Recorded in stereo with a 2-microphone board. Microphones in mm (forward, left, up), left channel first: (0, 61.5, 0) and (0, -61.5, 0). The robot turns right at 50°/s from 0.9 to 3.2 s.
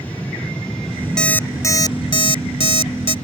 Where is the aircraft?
10° left (ahead or behind); by 3.2 s 60° left (ahead or behind).